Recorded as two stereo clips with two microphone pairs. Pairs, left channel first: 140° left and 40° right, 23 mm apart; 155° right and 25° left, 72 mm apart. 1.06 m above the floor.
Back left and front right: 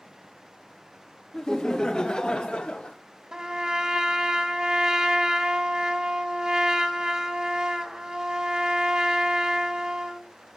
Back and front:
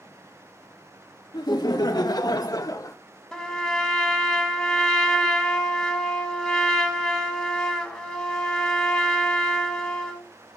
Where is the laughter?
160° right, 1.7 m; by 3.0 s 170° left, 1.0 m.